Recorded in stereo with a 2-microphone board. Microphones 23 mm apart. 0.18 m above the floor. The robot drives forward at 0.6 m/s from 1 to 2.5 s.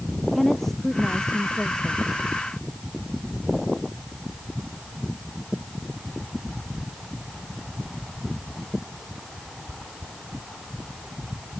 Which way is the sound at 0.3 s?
15° left (ahead or behind).